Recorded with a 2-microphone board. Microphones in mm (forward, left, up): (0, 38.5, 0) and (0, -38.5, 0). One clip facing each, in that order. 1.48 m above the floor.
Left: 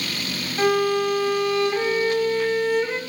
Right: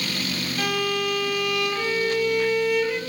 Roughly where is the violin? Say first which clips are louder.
Left 7 dB; left.